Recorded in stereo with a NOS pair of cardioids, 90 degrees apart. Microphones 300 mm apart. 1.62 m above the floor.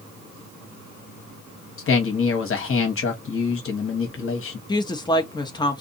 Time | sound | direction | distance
1.8 | a man speaking | 50° left | 1.3 m
4.7 | a woman speaking | 15° left | 0.8 m